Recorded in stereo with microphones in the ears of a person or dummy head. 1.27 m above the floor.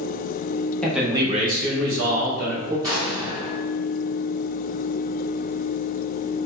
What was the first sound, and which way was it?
A man speaking, 5° left (ahead or behind).